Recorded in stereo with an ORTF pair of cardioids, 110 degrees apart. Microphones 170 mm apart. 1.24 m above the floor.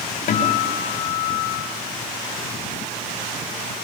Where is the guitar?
65° left, 6 m.